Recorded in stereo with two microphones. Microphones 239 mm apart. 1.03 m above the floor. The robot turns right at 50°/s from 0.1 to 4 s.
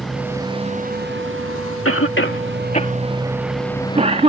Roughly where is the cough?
Left.